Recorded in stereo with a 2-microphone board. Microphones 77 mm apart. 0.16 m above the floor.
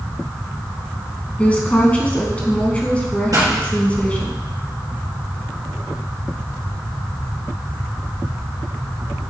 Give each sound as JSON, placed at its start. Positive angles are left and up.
{"t": 1.4, "sound": "a woman speaking", "side_deg": 20, "distance_m": 1.4}
{"t": 3.3, "sound": "a pop", "side_deg": -55, "distance_m": 3.0}